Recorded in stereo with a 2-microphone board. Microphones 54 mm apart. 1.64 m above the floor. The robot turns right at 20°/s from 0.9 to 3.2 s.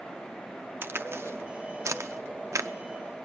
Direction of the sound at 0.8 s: 45° right (ahead or behind).